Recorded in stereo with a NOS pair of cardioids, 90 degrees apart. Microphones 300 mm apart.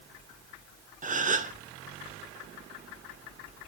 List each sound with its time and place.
1.0 s a gasp: 25° right, 0.7 m